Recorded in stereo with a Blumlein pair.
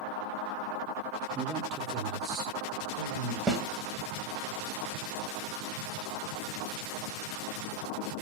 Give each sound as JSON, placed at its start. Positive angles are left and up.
{"t": 1.4, "sound": "a man speaking", "azimuth_deg": -15, "distance_m": 0.6}
{"t": 3.5, "sound": "a snare drum", "azimuth_deg": -20, "distance_m": 1.0}